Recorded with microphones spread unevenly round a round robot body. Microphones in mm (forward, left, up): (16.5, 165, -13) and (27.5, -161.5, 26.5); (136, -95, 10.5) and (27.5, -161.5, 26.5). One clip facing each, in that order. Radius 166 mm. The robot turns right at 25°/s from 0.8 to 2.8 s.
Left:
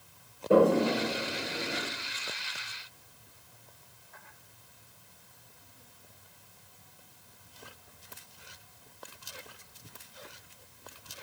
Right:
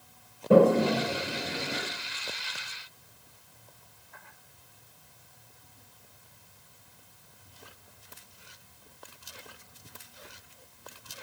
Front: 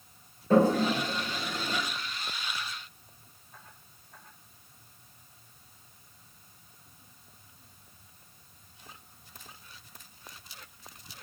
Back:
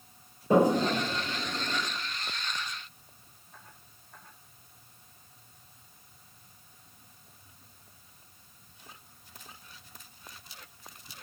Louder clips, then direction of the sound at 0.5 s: Right 2 dB, even; 75° right.